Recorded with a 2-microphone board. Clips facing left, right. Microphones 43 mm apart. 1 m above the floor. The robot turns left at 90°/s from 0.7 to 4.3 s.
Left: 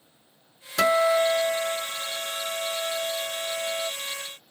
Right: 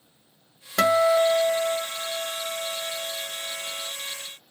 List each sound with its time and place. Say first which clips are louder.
0.8 s a guitar: right 1 dB; 70° right, 1.4 m; by 3.9 s 5° left, 1.4 m